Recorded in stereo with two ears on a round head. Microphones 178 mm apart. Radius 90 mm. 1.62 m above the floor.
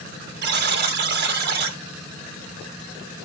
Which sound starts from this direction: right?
A buzzer, at 0.4 s.